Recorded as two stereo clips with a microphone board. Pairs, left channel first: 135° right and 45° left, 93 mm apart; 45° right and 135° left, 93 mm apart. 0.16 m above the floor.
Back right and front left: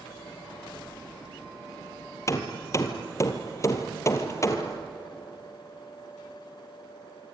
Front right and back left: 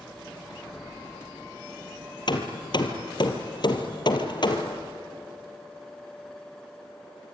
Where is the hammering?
80° right, 2 m.